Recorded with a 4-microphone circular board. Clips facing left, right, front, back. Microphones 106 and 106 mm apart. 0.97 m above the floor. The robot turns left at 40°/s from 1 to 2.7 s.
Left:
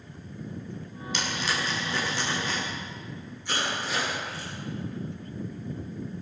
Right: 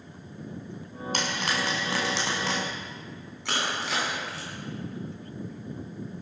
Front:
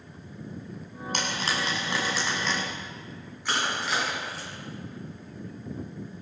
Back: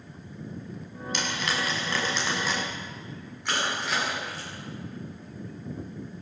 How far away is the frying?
About 6.5 m.